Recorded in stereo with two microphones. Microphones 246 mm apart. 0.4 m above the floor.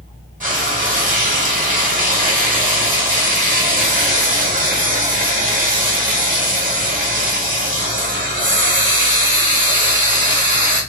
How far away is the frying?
About 1.0 m.